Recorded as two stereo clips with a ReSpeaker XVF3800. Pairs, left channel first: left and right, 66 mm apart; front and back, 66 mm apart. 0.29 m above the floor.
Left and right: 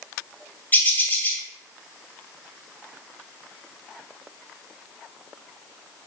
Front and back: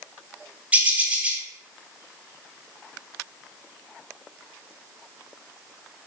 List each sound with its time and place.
0.7 s a bird: 130° left, 0.6 m